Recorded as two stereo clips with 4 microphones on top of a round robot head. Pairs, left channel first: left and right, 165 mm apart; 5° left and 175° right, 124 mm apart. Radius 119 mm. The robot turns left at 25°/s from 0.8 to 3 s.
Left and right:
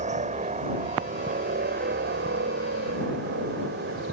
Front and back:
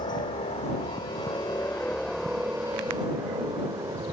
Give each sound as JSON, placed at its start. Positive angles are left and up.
{"t": 0.0, "sound": "a helicopter", "azimuth_deg": -50}